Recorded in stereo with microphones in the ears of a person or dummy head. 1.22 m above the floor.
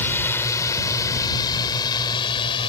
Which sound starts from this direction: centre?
A drone, at 0.0 s.